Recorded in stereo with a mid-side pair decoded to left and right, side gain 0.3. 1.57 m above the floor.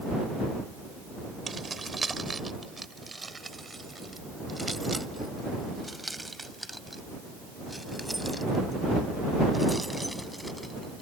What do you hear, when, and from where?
1.5 s keys jangling: 40° right; by 11.0 s 5° right